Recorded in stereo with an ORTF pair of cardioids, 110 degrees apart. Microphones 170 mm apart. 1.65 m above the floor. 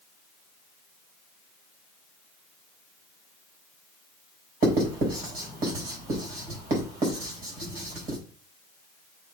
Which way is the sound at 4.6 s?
60° right.